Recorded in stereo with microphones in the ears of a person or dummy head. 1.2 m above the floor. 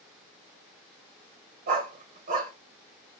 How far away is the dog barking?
About 1.3 m.